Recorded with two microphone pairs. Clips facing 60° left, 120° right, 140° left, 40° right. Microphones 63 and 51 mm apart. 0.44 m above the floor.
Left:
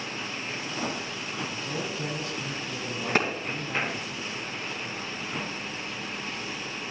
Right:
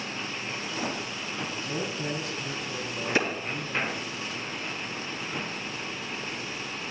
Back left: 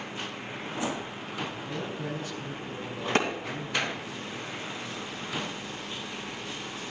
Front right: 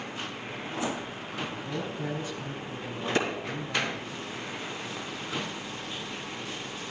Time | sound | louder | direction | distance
1.5 | a man speaking | even, front right 1 dB | 30° left | 3 m
3.1 | a clap | left 1 dB, back left 2 dB | 100° left | 2.5 m